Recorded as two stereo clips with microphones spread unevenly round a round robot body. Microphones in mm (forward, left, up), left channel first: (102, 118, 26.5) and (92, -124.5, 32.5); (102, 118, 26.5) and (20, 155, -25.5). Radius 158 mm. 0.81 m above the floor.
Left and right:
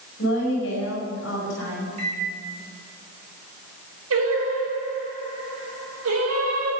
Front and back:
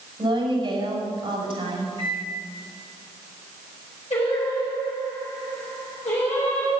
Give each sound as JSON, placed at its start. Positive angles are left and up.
{"t": 0.2, "sound": "a woman speaking", "azimuth_deg": 140, "distance_m": 6.0}
{"t": 2.0, "sound": "a microwave", "azimuth_deg": -85, "distance_m": 3.0}
{"t": 4.1, "sound": "singing", "azimuth_deg": -80, "distance_m": 5.0}